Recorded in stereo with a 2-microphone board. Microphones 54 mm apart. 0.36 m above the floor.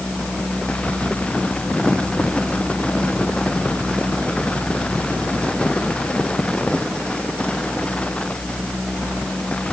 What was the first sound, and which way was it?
Only background noise.